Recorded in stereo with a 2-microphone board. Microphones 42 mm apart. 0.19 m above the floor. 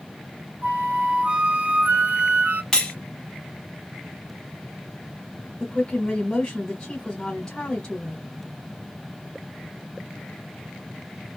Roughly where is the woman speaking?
Centre.